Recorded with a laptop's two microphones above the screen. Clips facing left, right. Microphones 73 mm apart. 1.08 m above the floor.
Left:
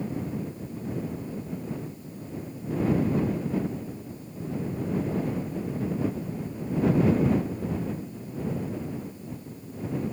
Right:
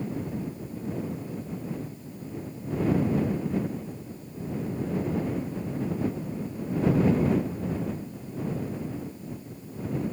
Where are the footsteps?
No footsteps in this recording.